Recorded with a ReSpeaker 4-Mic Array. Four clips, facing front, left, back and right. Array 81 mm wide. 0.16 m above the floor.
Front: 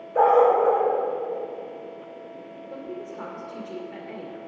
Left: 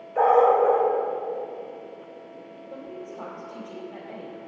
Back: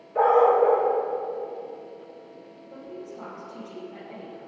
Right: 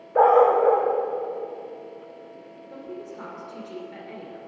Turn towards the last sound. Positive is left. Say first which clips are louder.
# right 1 dB, front 3 dB
turn(degrees=-35)